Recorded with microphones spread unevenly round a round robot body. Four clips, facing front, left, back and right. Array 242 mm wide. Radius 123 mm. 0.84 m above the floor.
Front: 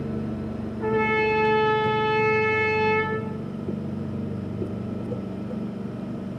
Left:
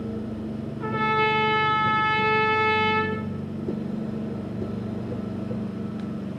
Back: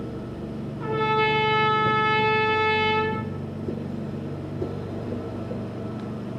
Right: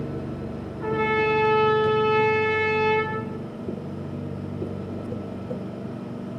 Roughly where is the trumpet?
Ahead.